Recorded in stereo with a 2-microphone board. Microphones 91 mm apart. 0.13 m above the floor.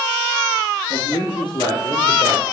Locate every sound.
0.9 s a man speaking: 50° left (ahead or behind), 2.5 m; by 2.4 s 45° left (ahead or behind), 2.5 m